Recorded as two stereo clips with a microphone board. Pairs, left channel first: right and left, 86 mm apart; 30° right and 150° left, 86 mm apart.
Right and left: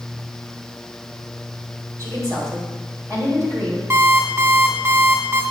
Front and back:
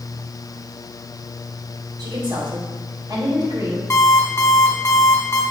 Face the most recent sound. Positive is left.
turn(degrees=35)